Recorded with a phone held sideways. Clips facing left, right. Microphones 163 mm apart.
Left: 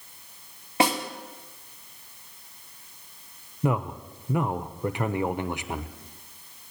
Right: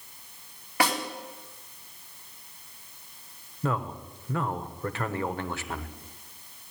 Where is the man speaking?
15° left (ahead or behind), 0.5 m.